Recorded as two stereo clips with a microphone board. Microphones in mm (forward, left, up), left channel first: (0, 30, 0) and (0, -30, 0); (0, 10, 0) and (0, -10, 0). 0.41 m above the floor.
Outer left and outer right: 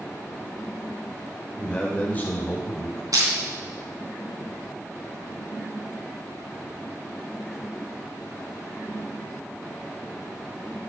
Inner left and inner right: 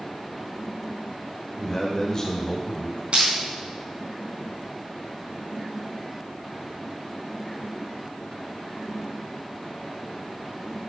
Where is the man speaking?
15° left (ahead or behind), 1.7 m; by 3.0 s 45° left (ahead or behind), 2.5 m.